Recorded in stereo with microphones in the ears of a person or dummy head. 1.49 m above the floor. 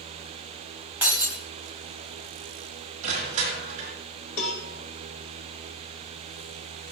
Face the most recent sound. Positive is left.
turn(degrees=70)  # may be behind; listen again after turning